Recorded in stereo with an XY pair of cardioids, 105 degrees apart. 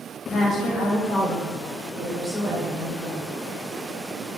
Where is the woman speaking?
45° left, 1.0 m; by 3.2 s 60° right, 2 m.